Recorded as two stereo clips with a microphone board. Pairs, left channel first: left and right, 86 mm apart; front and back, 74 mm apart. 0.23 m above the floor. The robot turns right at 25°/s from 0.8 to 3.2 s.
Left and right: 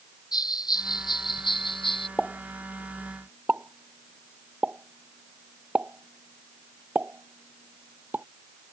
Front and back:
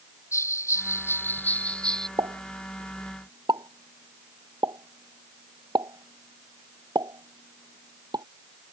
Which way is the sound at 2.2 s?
175° left.